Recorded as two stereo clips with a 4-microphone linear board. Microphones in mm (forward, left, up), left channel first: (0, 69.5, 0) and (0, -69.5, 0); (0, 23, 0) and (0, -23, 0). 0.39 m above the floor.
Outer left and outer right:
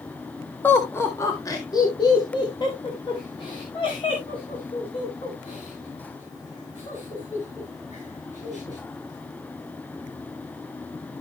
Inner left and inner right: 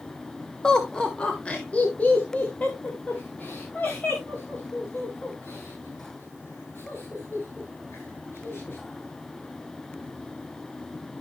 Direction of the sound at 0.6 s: 15° left (ahead or behind).